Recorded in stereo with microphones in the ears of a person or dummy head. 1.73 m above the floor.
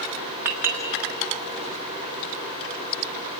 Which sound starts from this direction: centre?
A clink, at 0.5 s.